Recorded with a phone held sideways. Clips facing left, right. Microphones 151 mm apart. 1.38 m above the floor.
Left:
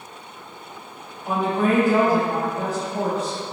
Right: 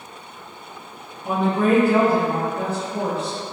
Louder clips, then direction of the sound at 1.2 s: Right 2 dB; 35° right (ahead or behind).